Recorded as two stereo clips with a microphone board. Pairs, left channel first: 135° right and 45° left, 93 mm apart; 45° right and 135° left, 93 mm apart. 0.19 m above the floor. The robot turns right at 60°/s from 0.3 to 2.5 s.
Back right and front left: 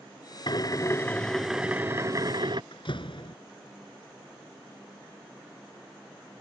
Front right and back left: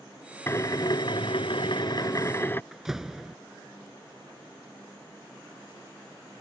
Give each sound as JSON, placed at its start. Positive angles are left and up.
{"t": 0.5, "sound": "a drill", "azimuth_deg": -105}
{"t": 2.7, "sound": "a door slam", "azimuth_deg": -140}